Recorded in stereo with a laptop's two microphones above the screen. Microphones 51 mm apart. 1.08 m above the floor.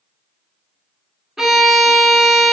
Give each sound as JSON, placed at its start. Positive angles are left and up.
{"t": 1.4, "sound": "a violin", "side_deg": -5, "distance_m": 0.8}